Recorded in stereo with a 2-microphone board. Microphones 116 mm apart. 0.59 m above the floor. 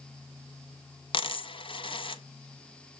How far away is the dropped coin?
About 0.6 m.